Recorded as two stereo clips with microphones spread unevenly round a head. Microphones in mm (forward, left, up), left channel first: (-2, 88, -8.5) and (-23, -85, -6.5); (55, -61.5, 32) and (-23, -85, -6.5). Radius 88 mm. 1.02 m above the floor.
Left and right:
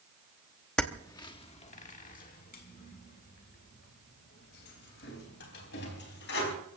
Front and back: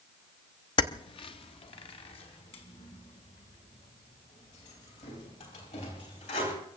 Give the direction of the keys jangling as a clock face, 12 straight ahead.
12 o'clock.